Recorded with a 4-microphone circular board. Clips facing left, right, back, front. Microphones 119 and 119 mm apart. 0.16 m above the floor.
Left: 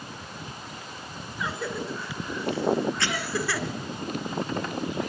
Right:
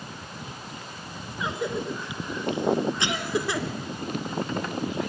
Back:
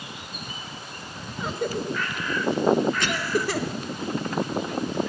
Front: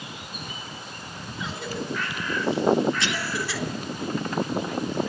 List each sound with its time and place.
1.4 s a cough: 155° right, 2.5 m